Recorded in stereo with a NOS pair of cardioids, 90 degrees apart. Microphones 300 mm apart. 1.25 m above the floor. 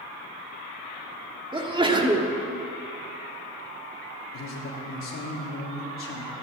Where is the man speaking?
50° left, 3.5 m.